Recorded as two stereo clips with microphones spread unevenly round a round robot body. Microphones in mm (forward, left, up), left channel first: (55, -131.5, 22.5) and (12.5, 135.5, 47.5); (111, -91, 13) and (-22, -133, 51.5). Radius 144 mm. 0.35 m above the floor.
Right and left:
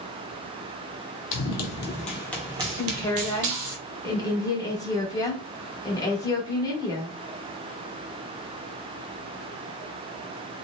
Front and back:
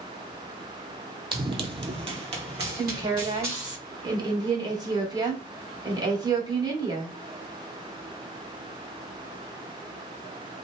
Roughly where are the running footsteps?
Behind right.